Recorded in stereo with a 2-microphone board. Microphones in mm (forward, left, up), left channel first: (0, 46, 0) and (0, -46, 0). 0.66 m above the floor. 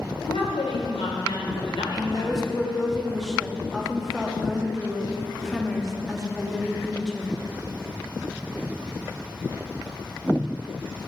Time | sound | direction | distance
0.3 | a woman speaking | 75° left (ahead or behind) | 1.8 m
2.0 | a woman speaking | centre (ahead or behind) | 1.0 m